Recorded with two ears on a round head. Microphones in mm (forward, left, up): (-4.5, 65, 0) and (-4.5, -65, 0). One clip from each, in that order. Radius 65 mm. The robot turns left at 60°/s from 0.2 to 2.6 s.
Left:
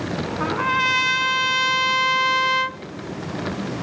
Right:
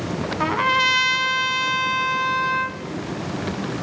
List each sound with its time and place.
0.4 s a trumpet: 120° right, 0.7 m; by 2.8 s 110° left, 0.7 m